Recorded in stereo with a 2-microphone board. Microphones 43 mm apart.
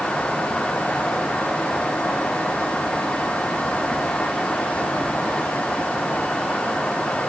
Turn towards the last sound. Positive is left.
No sound to turn to.